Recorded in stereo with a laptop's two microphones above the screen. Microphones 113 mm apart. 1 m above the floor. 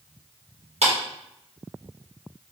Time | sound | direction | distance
0.8 | a clap | 70° right (ahead or behind) | 1.5 m